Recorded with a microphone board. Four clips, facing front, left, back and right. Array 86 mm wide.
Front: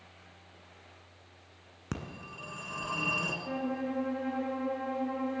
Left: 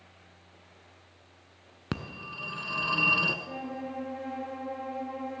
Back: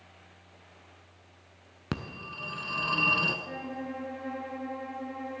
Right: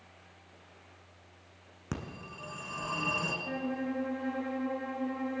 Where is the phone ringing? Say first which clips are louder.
Left 4 dB, back 4 dB; 125° left, 0.7 m.